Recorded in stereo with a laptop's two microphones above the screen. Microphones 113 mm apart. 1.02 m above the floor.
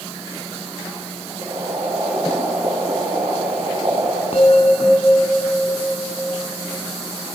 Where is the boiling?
70° right (ahead or behind), 4 m.